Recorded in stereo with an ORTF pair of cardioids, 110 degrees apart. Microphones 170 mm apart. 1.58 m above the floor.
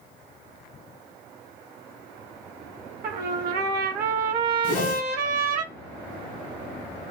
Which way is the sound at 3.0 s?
60° right.